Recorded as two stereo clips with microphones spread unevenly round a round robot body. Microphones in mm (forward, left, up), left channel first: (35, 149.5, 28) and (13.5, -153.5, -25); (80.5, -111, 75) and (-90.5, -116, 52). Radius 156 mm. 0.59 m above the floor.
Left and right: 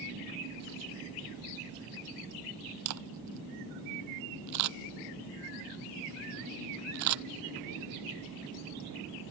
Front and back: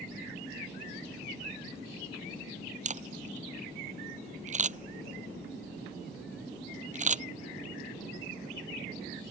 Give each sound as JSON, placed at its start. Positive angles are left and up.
{"t": 2.9, "sound": "a camera shutter", "azimuth_deg": -135}